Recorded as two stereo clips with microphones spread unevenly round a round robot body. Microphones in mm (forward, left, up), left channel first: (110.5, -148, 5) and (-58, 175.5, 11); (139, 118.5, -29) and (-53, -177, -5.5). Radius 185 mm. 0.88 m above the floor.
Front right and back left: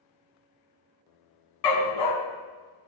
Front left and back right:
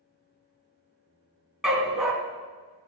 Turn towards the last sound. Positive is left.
turn(degrees=-35)